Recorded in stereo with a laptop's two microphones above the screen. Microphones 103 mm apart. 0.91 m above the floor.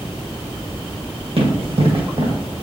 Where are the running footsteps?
65° right (ahead or behind), 2 m.